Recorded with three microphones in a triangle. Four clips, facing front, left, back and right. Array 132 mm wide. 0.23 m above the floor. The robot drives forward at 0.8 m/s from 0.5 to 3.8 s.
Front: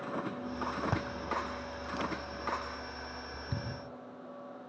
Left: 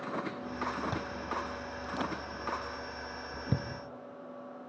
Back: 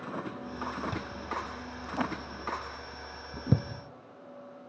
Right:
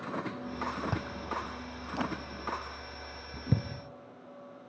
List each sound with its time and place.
0.9 s chewing: 15° right, 0.7 m; by 3.6 s 175° right, 1.9 m